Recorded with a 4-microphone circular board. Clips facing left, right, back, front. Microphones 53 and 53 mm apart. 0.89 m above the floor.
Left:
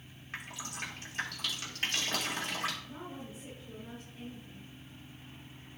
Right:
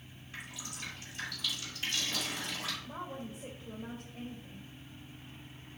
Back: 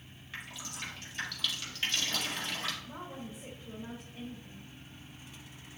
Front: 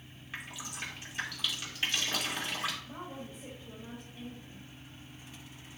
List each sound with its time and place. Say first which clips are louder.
0.3 s dripping: left 4 dB, front 1 dB; 75° left, 2.0 m
2.9 s a woman speaking: right 2 dB, even; 105° right, 3.5 m